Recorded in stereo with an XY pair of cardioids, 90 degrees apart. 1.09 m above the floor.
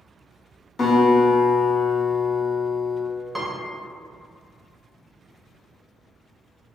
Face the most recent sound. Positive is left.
turn(degrees=-5)